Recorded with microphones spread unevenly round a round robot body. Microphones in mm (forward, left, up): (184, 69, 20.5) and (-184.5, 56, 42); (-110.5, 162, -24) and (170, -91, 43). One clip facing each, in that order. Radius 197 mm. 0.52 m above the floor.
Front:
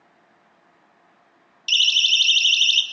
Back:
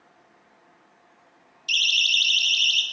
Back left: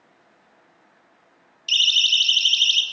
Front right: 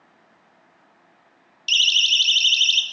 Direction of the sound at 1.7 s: 5° left.